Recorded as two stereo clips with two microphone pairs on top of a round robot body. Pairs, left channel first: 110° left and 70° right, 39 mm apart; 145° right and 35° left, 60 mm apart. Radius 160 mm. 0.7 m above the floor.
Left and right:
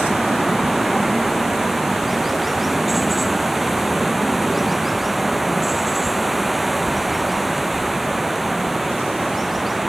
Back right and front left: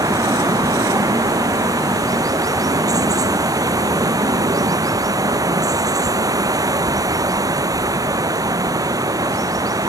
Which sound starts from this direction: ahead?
Running water, at 0.0 s.